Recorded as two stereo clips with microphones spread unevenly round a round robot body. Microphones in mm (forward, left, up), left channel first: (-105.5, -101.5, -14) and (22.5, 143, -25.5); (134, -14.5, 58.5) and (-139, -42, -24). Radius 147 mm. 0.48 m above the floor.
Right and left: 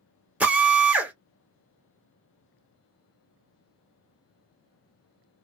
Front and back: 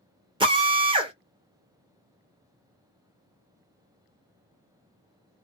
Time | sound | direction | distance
0.4 | a drill | 145° left | 1.1 m